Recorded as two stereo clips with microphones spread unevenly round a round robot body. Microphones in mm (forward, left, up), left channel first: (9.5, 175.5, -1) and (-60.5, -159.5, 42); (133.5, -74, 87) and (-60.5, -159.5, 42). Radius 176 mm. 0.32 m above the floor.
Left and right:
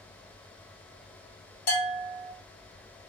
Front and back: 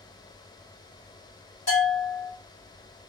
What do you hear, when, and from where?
1.7 s a bell: 85° left, 1.7 m